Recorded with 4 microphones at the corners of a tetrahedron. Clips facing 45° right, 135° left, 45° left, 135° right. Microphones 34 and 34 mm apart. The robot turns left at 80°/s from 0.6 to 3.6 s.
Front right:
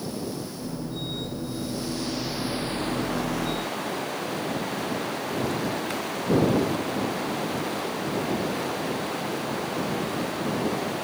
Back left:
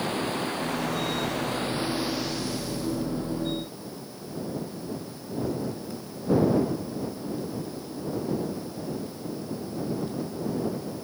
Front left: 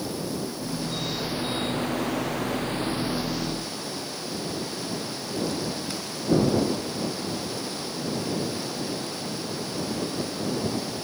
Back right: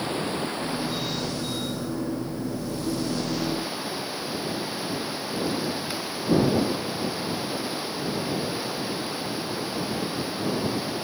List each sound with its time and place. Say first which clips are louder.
0.0 s running water: back left 4 dB, back right 3 dB; 175° left; by 11.0 s 65° right